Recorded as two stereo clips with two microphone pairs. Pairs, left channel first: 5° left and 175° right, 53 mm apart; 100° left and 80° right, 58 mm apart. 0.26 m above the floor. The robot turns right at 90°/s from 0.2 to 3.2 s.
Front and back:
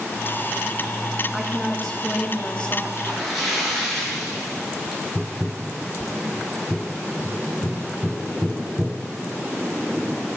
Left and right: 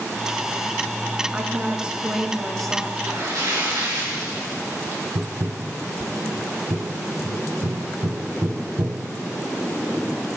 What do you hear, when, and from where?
1.3 s a woman speaking: 105° right, 1.3 m; by 2.9 s 35° left, 1.3 m
3.0 s a splash: 105° right, 3.5 m; by 5.0 s 85° right, 3.5 m
5.2 s tapping: 85° right, 0.6 m